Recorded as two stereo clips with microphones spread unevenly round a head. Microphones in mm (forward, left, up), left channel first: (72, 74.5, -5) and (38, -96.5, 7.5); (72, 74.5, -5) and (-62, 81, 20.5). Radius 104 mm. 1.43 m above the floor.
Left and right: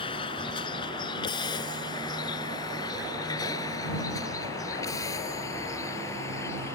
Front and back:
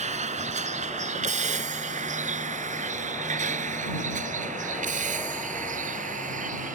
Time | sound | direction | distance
0.0 | a vehicle | 145° left | ?